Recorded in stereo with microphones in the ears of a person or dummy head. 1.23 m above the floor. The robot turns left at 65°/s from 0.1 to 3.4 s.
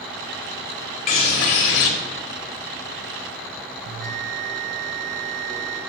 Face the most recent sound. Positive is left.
turn(degrees=-60)  # may be behind; listen again after turning